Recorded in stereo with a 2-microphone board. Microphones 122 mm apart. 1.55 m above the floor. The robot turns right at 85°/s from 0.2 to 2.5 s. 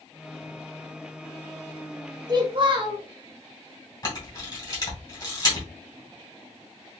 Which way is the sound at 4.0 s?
35° left (ahead or behind).